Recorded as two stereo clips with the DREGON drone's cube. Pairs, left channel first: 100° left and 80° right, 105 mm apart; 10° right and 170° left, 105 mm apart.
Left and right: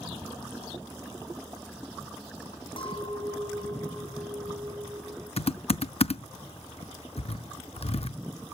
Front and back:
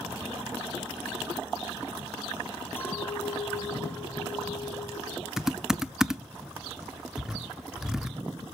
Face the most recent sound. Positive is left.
turn(degrees=85)